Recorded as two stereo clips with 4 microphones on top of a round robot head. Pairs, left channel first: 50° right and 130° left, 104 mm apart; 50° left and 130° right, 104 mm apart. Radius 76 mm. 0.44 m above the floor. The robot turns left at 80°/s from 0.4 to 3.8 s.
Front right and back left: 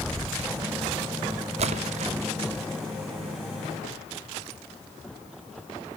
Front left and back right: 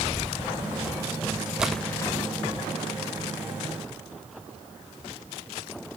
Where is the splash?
150° left, 0.6 m; by 2.1 s 105° left, 0.6 m.